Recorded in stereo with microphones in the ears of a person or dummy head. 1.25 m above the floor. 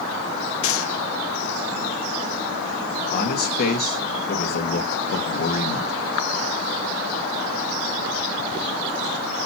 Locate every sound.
0.6 s a gunshot: 70° left (ahead or behind), 1.0 m
3.1 s a man speaking: 50° left (ahead or behind), 1.6 m